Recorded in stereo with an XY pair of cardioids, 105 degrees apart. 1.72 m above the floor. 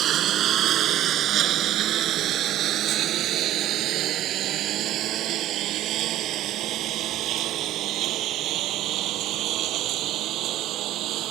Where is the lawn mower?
65° right; by 11.3 s 80° right.